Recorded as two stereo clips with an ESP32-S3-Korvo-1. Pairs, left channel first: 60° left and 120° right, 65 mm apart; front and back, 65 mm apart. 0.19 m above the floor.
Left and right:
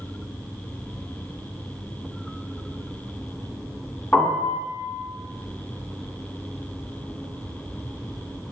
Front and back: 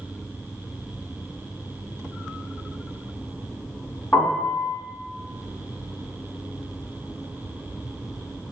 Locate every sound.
4.1 s a piano: 25° left, 1.6 m